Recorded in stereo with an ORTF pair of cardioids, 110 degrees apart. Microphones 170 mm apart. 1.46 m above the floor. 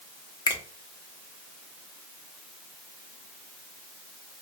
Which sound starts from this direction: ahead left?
A finger snap, at 0.5 s.